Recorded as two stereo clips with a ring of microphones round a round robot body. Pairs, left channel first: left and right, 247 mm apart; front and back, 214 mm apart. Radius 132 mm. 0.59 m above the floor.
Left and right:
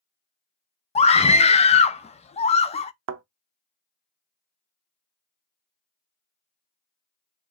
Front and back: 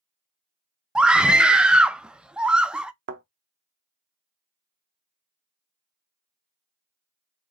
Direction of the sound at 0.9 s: 100° left.